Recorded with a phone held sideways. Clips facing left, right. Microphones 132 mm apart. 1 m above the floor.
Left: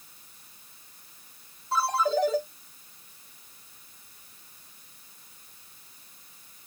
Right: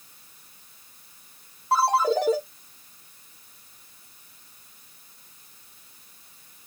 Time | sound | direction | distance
1.7 | a ringtone | 75° right (ahead or behind) | 3 m